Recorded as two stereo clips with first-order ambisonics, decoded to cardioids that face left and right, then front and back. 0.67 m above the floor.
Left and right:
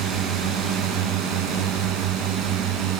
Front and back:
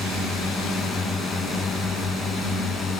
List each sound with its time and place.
0.0 s a drone: 70° right; by 3.0 s 65° right